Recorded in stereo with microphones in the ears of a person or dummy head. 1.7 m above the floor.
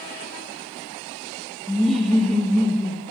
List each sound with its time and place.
1.7 s laughter: 5° left (ahead or behind), 0.9 m